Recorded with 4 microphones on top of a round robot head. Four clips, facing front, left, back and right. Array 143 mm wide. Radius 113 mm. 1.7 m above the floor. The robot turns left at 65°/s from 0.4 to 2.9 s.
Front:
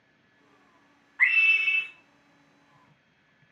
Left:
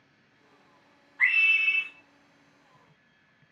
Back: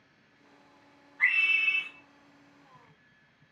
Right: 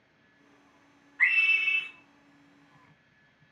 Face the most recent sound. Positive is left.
turn(degrees=-85)